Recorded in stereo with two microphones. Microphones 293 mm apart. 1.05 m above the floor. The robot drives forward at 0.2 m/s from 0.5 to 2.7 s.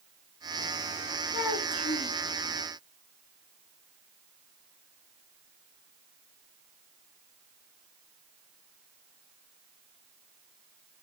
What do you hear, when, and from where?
1.3 s a child speaking: 70° left (ahead or behind), 2 m